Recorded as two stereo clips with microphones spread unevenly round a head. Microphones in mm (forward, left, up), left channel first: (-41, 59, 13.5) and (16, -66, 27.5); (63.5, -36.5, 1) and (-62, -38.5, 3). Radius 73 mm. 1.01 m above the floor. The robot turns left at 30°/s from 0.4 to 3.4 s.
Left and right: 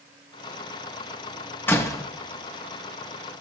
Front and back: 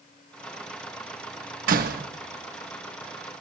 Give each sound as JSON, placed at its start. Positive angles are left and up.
{"t": 1.7, "sound": "a door slam", "azimuth_deg": -170, "distance_m": 1.4}